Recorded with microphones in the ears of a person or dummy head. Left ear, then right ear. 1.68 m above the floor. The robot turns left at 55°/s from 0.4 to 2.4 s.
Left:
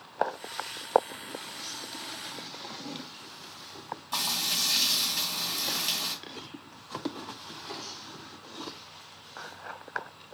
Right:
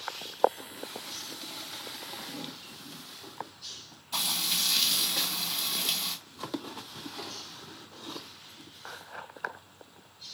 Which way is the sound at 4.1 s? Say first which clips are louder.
Even; 50° left (ahead or behind).